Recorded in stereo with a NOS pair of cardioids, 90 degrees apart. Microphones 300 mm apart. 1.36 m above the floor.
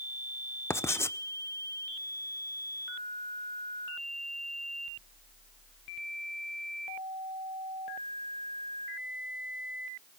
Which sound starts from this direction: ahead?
Writing, at 0.7 s.